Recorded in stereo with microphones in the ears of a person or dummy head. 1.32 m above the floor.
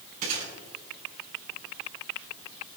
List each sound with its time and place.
0.2 s a gunshot: 45° right (ahead or behind), 5 m